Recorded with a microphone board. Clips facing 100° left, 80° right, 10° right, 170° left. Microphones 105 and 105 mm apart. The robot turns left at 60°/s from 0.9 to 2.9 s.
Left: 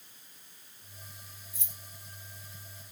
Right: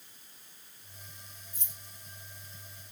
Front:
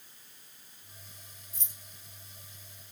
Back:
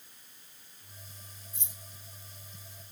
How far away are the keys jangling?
About 1.1 m.